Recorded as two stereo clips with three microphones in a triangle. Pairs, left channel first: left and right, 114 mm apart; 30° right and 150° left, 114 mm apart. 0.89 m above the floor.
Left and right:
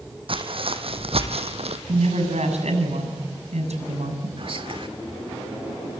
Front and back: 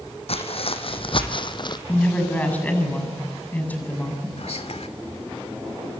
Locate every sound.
0.3 s footsteps: 55° right, 3 m; by 1.8 s 75° right, 2 m
1.9 s a woman speaking: 105° right, 7.5 m
4.4 s whispering: 55° right, 2.5 m